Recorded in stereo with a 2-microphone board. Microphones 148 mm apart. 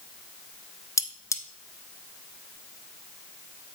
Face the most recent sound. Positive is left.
turn(degrees=20)  # may be behind; listen again after turning